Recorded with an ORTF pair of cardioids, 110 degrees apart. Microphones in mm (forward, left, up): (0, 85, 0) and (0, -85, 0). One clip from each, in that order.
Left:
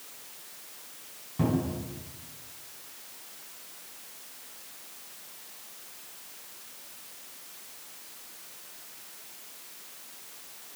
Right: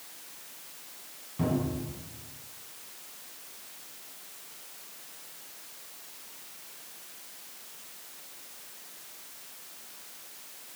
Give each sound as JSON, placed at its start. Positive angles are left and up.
{"t": 1.4, "sound": "a cupboard door", "azimuth_deg": 25, "distance_m": 4.5}